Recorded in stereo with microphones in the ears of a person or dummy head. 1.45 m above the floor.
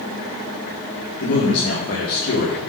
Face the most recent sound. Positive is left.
turn(degrees=60)  # may be behind; listen again after turning